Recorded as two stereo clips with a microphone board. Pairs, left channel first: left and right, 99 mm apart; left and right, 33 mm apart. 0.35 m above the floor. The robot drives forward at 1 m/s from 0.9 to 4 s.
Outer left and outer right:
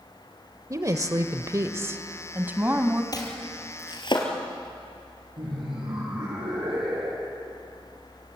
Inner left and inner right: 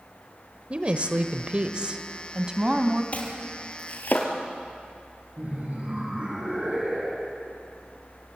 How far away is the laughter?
About 9.5 m.